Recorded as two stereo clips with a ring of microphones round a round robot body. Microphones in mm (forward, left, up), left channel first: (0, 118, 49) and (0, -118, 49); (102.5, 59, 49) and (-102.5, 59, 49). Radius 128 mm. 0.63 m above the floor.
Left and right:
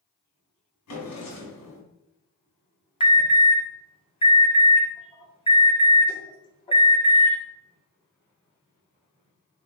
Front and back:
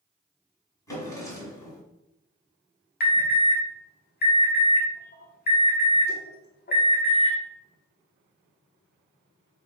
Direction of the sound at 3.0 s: 25° left.